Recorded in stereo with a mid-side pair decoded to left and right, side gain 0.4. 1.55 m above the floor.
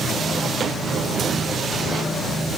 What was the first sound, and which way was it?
Only background noise.